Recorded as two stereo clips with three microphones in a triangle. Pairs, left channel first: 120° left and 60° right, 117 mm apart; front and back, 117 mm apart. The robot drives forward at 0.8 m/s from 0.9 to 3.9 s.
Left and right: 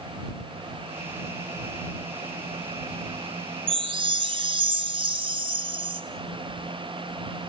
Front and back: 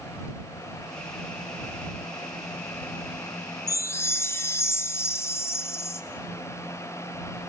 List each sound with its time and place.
3.7 s a chime: 50° right, 1.3 m; by 6.0 s 55° right, 1.2 m